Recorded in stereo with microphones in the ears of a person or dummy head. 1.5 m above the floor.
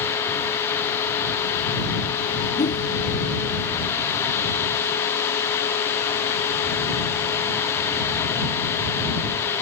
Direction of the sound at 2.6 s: 30° left (ahead or behind).